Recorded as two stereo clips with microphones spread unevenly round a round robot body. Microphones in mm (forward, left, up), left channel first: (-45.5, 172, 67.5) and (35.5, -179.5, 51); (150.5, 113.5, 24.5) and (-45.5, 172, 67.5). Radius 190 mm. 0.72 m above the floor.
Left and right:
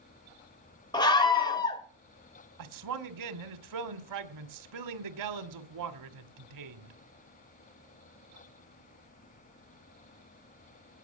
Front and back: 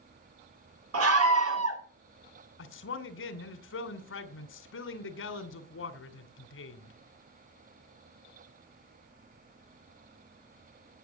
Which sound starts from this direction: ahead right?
A man speaking, at 2.6 s.